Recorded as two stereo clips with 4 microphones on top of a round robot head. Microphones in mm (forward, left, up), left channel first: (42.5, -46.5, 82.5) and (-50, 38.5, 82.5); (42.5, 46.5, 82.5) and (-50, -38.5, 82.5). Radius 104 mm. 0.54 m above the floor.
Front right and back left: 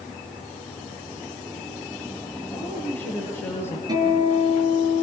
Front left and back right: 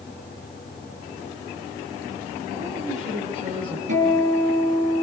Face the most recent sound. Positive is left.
turn(degrees=-160)